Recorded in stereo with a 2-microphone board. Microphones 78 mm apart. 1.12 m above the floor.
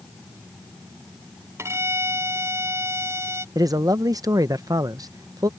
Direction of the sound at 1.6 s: 40° right (ahead or behind).